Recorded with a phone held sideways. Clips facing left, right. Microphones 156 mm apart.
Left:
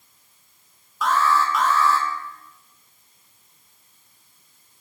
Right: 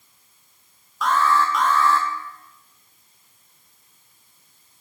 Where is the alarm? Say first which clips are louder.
Right 1 dB; 5° left (ahead or behind), 1.5 m.